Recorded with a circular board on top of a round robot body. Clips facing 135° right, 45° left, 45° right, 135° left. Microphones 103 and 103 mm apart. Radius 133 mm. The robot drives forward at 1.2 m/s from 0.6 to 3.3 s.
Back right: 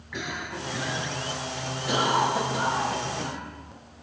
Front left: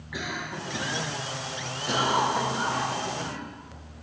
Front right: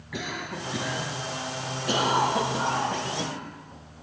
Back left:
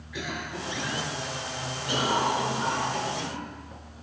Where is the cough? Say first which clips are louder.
Even, front right 1 dB; 40° right, 6.5 m; by 3.4 s 65° right, 4.5 m.